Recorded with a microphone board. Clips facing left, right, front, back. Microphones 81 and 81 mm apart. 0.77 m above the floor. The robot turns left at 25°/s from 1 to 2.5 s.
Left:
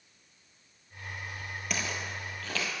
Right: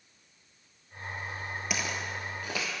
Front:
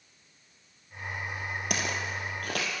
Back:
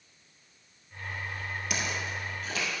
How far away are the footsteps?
About 1.2 m.